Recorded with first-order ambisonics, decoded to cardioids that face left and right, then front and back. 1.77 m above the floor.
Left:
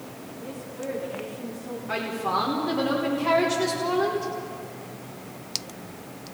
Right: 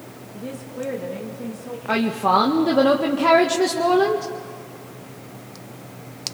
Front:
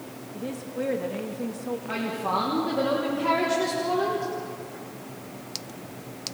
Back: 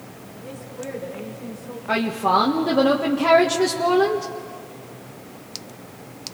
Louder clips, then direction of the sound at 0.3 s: Right 6 dB, front 4 dB; 40° right.